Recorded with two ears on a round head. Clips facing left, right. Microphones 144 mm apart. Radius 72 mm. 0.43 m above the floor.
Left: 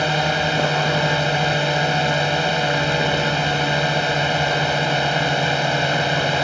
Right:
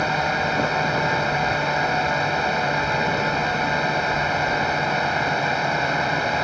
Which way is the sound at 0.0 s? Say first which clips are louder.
Left 2 dB; 35° left (ahead or behind).